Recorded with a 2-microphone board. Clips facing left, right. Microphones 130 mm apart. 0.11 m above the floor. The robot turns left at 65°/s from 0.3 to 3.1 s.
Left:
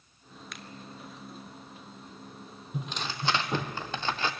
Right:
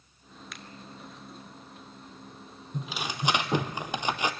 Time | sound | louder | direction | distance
0.5 | a finger snap | left 1 dB | centre (ahead or behind) | 1.0 m
2.7 | tearing paper | right 1 dB | 5° left (ahead or behind) | 1.2 m